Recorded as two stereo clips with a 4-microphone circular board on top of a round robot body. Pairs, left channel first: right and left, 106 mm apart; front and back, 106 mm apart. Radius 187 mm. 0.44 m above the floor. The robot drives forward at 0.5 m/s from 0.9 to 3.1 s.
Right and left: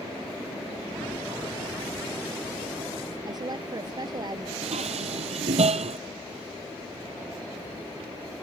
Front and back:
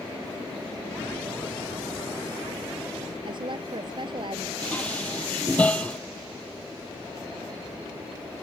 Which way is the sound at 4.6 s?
80° left.